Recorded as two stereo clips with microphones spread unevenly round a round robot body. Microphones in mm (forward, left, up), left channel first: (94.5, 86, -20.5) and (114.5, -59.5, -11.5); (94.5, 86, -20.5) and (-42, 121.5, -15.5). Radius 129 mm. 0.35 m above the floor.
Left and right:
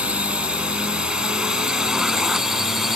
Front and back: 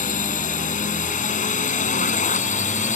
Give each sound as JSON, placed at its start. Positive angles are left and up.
{"t": 0.0, "sound": "a drone", "azimuth_deg": 0}